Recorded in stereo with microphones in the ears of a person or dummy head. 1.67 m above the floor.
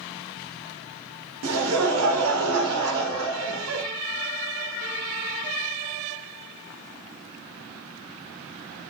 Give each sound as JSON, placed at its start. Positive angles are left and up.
{"t": 1.4, "sound": "laughter", "side_deg": -75, "distance_m": 0.8}